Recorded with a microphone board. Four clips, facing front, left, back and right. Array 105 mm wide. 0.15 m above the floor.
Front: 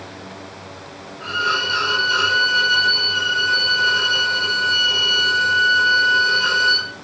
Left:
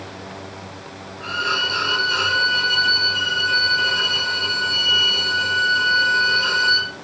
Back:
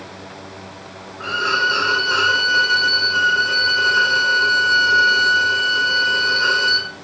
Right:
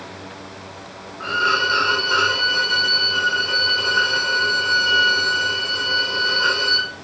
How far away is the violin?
About 3 m.